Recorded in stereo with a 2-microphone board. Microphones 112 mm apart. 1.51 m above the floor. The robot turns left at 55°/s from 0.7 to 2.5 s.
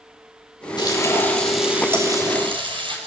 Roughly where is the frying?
Ahead left.